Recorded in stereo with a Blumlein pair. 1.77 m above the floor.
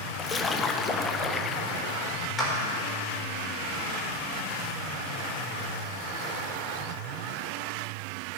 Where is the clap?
15° left, 4 m.